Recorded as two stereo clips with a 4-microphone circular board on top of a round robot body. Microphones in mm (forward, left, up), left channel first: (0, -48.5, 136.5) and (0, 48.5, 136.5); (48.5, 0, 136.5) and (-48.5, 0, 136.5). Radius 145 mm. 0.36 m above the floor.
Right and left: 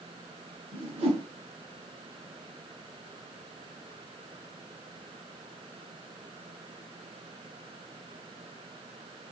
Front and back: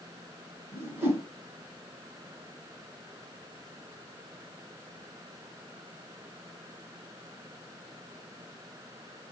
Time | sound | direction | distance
0.7 | a whoosh | 110° left | 1.3 m